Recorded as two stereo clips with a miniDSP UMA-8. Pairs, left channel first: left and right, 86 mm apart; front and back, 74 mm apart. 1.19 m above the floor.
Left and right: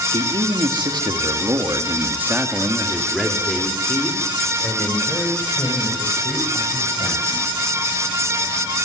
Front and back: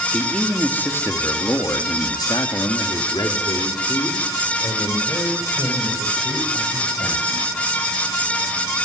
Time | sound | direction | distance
0.1 | a man speaking | 80° right | 3.5 m